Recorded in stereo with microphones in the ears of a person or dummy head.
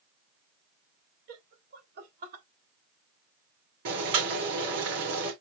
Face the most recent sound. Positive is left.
turn(degrees=-65)  # may be behind; listen again after turning